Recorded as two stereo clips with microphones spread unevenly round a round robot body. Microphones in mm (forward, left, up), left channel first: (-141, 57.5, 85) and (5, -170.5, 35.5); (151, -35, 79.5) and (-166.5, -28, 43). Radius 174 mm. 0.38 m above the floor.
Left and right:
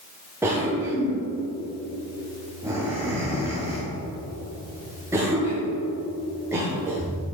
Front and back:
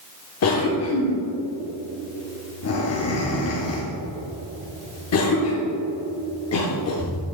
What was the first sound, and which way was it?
A cough, 5° left.